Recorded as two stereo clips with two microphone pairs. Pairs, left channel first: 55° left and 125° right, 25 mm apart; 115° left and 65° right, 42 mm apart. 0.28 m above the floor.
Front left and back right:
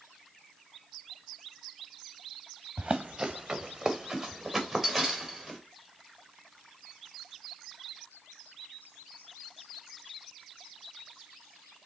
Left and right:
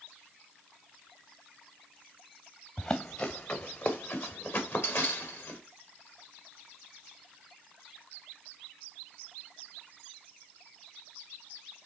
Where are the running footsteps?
Straight behind, 1.0 m; by 5.6 s 145° left, 2.5 m.